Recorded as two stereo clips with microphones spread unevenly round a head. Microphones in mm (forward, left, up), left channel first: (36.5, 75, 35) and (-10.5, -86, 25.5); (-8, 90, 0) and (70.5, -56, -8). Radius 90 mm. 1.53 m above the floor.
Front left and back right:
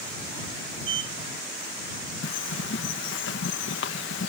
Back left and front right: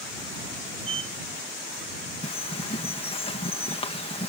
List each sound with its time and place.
0.8 s a sliding door: 125° right
2.2 s a bird: 65° left